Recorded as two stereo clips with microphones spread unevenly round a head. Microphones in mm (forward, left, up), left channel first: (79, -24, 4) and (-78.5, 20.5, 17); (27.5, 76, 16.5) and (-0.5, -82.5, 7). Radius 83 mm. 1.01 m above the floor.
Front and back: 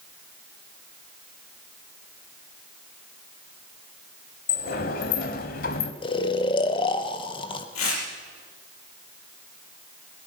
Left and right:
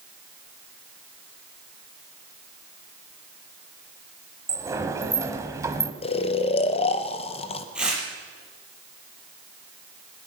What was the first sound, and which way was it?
A sliding door, 30° right.